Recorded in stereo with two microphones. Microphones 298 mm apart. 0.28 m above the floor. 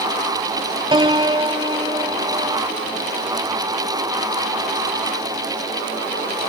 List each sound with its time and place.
0.9 s a piano: 15° right (ahead or behind)